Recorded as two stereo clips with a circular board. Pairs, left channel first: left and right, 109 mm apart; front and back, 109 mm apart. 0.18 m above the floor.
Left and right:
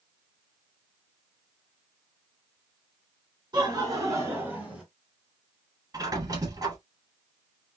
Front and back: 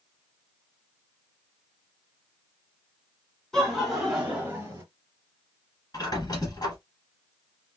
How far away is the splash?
No splash in this recording.